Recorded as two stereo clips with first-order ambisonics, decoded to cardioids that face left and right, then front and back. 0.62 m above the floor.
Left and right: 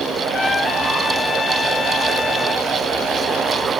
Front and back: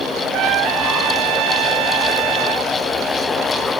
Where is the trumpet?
165° left.